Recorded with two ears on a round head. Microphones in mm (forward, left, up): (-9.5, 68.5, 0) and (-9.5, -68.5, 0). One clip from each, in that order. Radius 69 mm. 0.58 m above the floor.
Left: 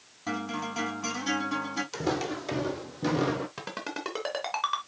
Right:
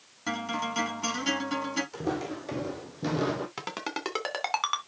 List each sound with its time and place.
0.3 s a guitar: 65° right (ahead or behind), 5.5 m
1.9 s footsteps: 45° left (ahead or behind), 1.3 m; by 3.5 s 10° right (ahead or behind), 1.1 m
3.6 s a ringtone: 45° right (ahead or behind), 2.5 m